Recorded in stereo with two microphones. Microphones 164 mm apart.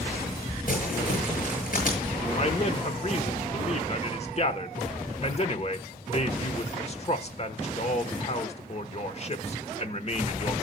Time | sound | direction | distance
0.7 | crumpling | 60° left (ahead or behind) | 7 m
2.3 | a man speaking | 40° left (ahead or behind) | 1.1 m